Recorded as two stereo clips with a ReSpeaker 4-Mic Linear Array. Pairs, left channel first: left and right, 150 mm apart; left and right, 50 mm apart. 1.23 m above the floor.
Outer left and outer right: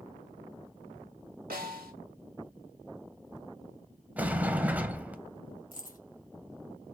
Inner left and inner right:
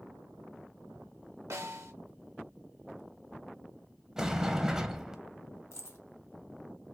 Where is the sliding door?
10° right (ahead or behind), 0.5 m.